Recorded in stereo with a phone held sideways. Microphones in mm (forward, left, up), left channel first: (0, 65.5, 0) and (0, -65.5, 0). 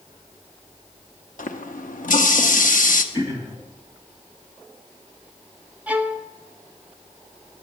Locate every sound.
1.4 s a running tap: 80° left, 0.8 m
3.1 s throat clearing: 30° left (ahead or behind), 2 m
5.9 s a violin: 10° right (ahead or behind), 0.8 m